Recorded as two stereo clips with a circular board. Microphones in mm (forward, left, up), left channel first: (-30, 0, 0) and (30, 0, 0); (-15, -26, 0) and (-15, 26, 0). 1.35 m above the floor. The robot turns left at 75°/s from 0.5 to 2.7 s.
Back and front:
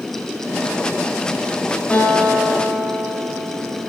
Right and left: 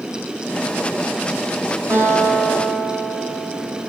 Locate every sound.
1.9 s a guitar: 110° left, 5 m; by 3.8 s 50° left, 5 m